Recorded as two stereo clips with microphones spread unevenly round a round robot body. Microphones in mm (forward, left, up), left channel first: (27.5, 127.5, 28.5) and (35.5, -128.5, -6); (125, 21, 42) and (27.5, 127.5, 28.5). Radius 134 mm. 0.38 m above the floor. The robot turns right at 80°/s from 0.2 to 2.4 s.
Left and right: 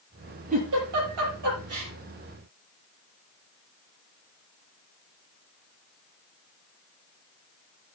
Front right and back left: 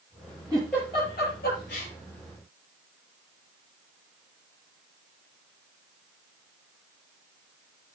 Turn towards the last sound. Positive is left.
turn(degrees=0)